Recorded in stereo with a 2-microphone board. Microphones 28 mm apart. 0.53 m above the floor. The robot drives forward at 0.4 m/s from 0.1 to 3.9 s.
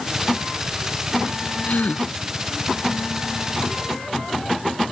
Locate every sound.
1.7 s a gasp: 65° left (ahead or behind)